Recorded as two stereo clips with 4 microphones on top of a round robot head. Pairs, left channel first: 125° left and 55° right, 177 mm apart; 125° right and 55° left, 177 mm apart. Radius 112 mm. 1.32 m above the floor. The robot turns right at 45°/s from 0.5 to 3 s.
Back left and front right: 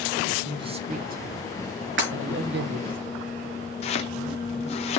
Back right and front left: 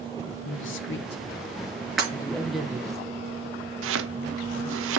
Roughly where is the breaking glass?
Ahead right.